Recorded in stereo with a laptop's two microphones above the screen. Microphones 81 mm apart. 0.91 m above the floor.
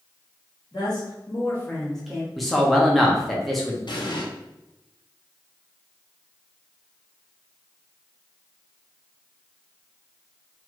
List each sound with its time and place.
0.7 s a woman speaking: 60° left (ahead or behind), 1.4 m; by 2.3 s 15° right (ahead or behind), 0.9 m
2.4 s a man speaking: centre (ahead or behind), 0.6 m
3.9 s an explosion: 65° left (ahead or behind), 0.8 m